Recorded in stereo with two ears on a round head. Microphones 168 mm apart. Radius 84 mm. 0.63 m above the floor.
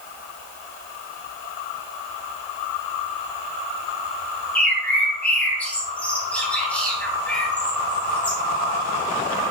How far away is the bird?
About 2 m.